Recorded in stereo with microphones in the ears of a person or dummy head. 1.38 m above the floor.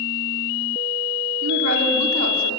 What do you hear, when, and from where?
1.4 s a woman speaking: 90° right, 3.5 m